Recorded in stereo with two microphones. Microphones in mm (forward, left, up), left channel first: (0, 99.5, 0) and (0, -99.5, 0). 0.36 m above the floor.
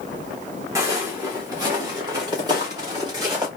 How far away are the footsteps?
About 1.2 m.